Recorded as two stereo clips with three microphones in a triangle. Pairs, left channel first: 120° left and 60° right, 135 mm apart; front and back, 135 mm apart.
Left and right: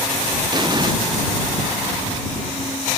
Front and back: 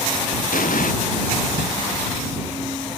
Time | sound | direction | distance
0.5 | an explosion | straight ahead | ?